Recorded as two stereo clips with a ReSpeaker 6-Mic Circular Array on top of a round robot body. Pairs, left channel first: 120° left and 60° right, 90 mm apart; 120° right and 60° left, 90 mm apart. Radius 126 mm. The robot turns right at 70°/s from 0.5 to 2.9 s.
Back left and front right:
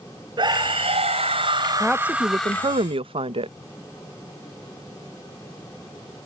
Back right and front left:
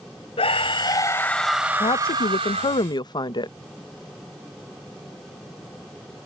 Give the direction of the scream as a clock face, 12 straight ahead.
3 o'clock.